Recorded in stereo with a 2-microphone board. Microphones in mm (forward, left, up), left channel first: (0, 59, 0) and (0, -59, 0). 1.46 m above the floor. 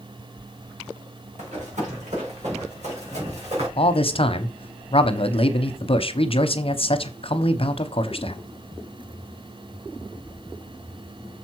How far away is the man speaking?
About 0.9 m.